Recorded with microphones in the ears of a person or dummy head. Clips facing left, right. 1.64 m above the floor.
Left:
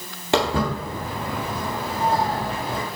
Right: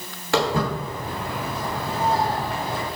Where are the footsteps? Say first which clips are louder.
Left 1 dB; 20° left (ahead or behind), 2 m; by 2.8 s 65° left (ahead or behind), 4 m.